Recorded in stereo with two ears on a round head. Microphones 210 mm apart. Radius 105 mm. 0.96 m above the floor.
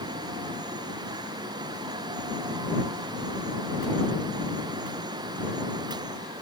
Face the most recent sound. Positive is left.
No sound to turn to.